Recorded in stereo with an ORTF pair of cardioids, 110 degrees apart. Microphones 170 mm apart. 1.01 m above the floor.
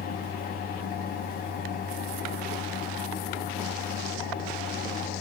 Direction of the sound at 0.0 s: 60° left.